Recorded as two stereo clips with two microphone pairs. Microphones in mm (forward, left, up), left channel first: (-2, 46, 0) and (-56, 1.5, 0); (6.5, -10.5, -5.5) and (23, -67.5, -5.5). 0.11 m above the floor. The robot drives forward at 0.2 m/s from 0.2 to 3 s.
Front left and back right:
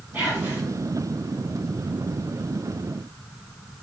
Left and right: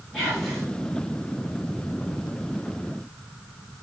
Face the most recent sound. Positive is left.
turn(degrees=-165)